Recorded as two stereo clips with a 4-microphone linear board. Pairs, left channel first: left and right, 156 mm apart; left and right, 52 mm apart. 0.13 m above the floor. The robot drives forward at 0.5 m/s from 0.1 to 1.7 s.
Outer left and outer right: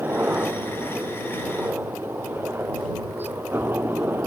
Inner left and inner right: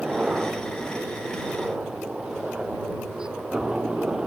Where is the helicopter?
15° right (ahead or behind).